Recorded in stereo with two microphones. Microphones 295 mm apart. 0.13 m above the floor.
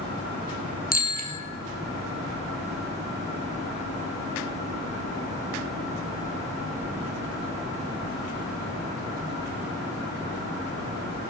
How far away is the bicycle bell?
About 2.5 m.